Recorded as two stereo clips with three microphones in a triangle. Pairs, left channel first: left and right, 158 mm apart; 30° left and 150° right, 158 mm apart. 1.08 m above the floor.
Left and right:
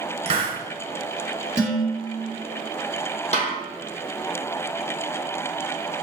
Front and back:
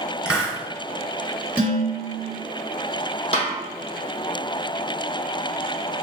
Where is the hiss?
70° right, 0.9 m.